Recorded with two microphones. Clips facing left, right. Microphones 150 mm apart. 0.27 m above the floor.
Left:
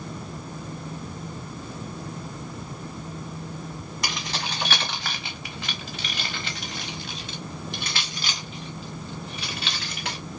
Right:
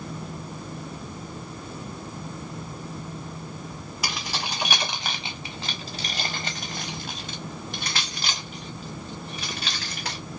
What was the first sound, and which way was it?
Keys jangling, 5° right (ahead or behind).